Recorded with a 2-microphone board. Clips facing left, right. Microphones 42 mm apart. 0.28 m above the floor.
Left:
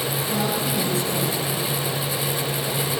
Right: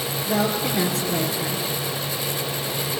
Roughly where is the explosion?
No explosion in this recording.